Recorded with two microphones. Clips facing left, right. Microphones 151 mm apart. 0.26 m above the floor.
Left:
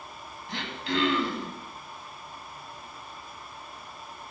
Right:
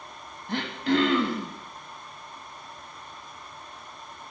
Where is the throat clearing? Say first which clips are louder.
Right 6 dB; 50° right (ahead or behind), 0.9 m.